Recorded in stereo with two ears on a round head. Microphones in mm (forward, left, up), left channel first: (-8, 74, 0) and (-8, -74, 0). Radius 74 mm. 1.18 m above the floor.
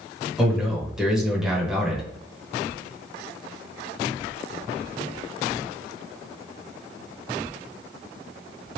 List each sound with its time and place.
0.4 s a man speaking: 5° right (ahead or behind), 1.2 m